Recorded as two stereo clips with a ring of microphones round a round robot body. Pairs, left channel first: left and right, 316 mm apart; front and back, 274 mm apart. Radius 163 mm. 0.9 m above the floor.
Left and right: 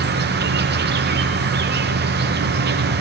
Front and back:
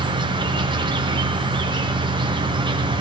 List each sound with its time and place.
0.0 s an insect: 120° right, 0.9 m